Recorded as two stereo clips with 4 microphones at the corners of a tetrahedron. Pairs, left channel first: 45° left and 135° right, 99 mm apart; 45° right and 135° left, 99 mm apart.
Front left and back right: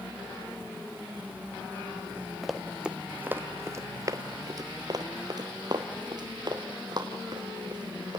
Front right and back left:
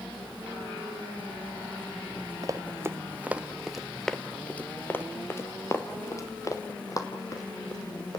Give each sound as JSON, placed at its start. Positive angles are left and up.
{"t": 2.4, "sound": "running footsteps", "azimuth_deg": 135, "distance_m": 1.0}